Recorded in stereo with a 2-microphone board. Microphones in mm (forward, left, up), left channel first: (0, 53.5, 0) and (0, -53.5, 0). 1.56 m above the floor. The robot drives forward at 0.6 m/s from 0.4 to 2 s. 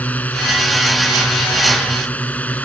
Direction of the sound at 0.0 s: 15° left (ahead or behind).